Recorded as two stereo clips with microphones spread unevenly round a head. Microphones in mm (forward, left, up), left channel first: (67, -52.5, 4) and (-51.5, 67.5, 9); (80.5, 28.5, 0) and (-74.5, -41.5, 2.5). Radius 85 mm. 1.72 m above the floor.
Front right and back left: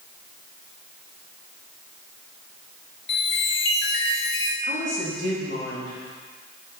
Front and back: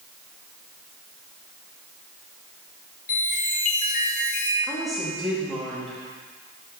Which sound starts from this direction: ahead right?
A woman speaking, at 4.6 s.